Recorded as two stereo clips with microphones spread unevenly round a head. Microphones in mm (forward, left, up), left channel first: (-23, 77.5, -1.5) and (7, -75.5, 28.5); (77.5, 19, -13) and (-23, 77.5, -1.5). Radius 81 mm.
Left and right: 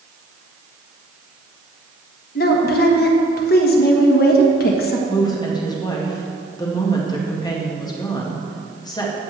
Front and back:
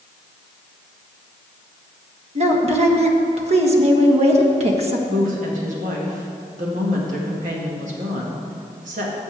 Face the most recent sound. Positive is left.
turn(degrees=165)